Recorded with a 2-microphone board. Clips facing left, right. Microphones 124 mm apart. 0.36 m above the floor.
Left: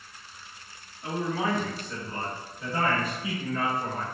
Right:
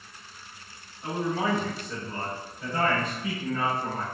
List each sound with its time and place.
1.0 s a man speaking: 35° right (ahead or behind), 1.5 m; by 4.0 s 30° left (ahead or behind), 1.5 m